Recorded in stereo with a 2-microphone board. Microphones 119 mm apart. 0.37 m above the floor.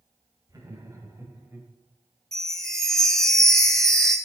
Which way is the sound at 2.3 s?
5° left (ahead or behind).